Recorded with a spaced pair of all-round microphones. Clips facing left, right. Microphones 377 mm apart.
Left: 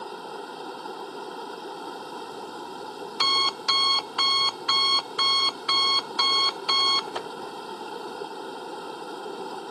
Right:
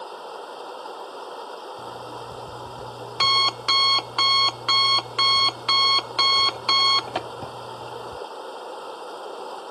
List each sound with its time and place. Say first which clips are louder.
0.0 s running water: even; 30° left (ahead or behind)
1.8 s an alarm clock: even; 75° right (ahead or behind)